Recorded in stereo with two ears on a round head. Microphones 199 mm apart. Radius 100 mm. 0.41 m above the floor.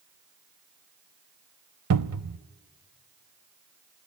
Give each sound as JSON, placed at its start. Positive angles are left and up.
{"t": 1.9, "sound": "a cupboard door", "side_deg": -80, "distance_m": 0.5}